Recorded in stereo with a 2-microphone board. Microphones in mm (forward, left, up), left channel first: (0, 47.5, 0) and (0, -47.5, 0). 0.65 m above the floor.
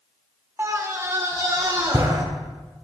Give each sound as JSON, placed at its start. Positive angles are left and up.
{"t": 0.6, "sound": "a scream", "side_deg": -25, "distance_m": 0.8}